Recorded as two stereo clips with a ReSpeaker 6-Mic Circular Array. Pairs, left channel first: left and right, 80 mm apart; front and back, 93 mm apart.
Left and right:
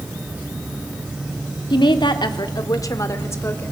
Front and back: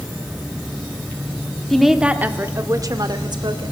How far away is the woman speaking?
About 1.6 m.